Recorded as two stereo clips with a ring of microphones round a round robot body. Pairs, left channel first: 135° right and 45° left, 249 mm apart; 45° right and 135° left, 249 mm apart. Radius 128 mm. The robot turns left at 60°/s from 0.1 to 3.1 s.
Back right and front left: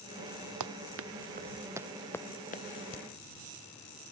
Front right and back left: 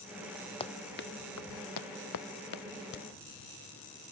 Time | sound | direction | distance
0.6 | running footsteps | 25° left | ?
2.9 | a crack | 85° right | ?